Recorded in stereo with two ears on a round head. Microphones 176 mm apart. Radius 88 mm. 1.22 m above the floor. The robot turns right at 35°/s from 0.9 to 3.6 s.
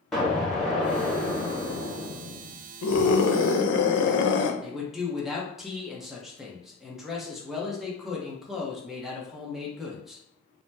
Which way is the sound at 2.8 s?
85° left.